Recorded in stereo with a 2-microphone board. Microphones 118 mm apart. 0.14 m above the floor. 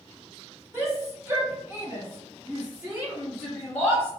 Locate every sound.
0.7 s a shout: 20° right (ahead or behind), 1.5 m; by 4.1 s 10° right (ahead or behind), 1.8 m